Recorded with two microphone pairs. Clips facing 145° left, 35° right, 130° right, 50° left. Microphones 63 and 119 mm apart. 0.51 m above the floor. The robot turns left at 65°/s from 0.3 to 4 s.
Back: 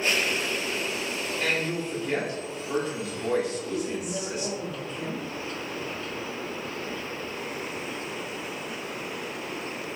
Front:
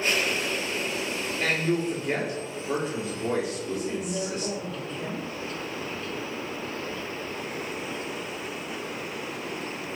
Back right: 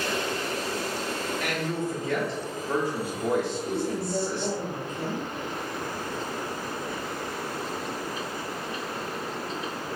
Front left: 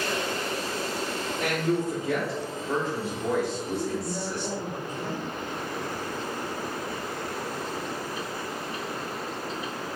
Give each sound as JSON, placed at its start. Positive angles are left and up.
{"t": 1.4, "sound": "a man speaking", "azimuth_deg": 30, "distance_m": 1.4}
{"t": 3.7, "sound": "a woman speaking", "azimuth_deg": -110, "distance_m": 1.3}